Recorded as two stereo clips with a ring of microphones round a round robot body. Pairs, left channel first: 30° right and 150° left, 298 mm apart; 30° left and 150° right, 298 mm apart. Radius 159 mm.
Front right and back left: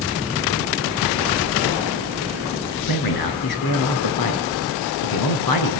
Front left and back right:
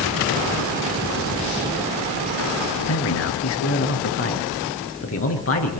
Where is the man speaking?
15° right, 6.5 m.